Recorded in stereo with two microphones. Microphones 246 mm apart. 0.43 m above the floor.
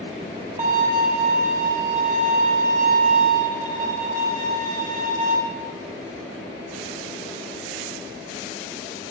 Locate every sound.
0.6 s a violin: 35° right (ahead or behind), 1.0 m